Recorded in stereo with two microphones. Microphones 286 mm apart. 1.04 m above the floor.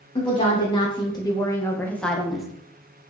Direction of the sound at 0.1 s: 20° left (ahead or behind).